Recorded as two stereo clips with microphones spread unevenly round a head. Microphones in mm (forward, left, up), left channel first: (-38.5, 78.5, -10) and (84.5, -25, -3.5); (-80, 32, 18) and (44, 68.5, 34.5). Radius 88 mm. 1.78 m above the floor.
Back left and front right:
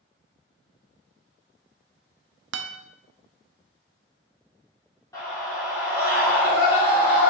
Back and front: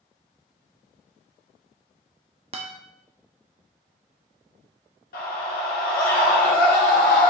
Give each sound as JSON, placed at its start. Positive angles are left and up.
{"t": 2.5, "sound": "a guitar", "azimuth_deg": -40, "distance_m": 0.7}
{"t": 5.1, "sound": "a scream", "azimuth_deg": -145, "distance_m": 4.0}